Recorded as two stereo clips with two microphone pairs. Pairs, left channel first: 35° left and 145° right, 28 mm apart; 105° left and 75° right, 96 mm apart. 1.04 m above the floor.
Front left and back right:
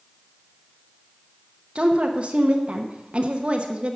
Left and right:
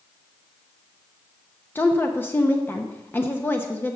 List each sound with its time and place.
1.8 s a woman speaking: 175° left, 0.8 m